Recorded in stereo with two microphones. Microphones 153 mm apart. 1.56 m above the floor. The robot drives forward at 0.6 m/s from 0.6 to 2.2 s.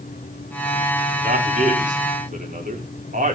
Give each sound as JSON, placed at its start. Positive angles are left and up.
{"t": 1.2, "sound": "a man speaking", "side_deg": -55, "distance_m": 5.5}